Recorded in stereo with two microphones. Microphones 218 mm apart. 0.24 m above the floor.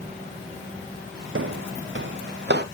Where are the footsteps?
70° right (ahead or behind), 0.6 m; by 2.6 s 55° right (ahead or behind), 1.9 m.